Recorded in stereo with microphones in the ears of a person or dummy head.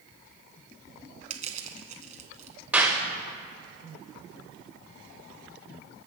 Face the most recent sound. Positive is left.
turn(degrees=-10)  # may be behind; listen again after turning